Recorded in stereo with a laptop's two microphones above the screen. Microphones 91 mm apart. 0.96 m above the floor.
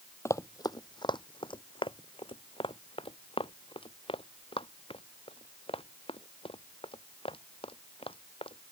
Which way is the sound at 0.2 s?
35° left (ahead or behind).